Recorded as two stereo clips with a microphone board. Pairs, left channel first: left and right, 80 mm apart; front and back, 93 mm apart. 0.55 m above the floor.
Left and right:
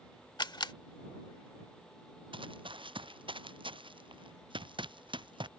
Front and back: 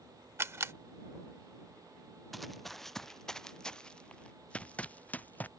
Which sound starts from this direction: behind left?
A camera shutter, at 0.4 s.